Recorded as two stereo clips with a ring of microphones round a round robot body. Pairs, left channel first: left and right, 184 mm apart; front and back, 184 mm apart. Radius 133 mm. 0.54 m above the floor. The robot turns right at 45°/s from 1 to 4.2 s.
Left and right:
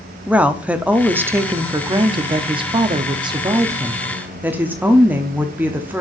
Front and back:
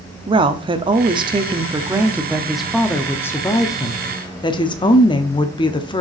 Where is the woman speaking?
165° right, 0.7 m; by 6.0 s 20° right, 0.7 m.